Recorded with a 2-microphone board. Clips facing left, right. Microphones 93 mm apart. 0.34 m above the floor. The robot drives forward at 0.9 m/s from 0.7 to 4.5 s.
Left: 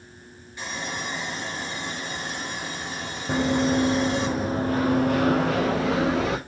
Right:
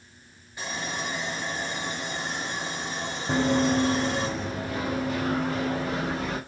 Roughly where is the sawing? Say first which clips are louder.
Even; centre.